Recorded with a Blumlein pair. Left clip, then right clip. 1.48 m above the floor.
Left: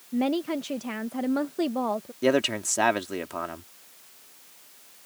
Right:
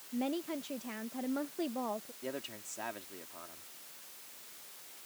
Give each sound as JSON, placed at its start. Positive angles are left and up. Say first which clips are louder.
{"t": 0.1, "sound": "a woman speaking", "louder": "left 10 dB", "azimuth_deg": 65}
{"t": 2.2, "sound": "a man speaking", "louder": "left 19 dB", "azimuth_deg": 50}